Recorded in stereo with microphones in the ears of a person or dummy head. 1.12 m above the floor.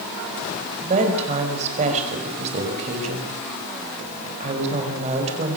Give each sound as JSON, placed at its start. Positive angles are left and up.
{"t": 0.8, "sound": "a woman speaking", "side_deg": -35, "distance_m": 5.5}